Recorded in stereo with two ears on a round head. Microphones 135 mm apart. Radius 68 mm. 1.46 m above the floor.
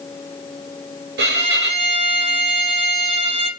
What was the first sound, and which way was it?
A violin, 75° right (ahead or behind).